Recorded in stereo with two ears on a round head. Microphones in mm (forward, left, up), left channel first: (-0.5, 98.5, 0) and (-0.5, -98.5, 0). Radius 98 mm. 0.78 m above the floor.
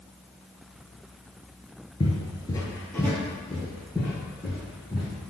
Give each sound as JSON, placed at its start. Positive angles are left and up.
{"t": 2.0, "sound": "footsteps", "side_deg": 25, "distance_m": 0.8}